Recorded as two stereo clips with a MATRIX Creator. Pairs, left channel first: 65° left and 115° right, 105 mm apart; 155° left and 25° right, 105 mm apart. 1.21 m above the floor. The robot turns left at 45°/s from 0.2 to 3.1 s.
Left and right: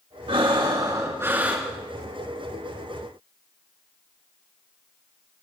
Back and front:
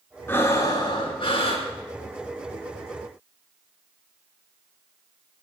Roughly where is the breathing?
Behind right.